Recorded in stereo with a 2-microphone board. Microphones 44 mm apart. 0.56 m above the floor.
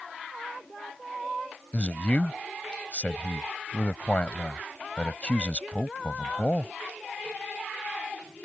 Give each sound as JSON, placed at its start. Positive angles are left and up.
{"t": 1.7, "sound": "a man speaking", "side_deg": 30}